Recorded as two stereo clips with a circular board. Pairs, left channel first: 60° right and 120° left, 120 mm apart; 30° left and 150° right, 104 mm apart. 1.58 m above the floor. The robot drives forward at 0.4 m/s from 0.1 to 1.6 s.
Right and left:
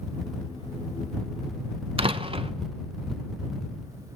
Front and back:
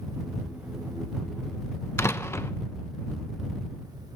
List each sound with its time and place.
2.0 s a door slam: 90° left, 0.9 m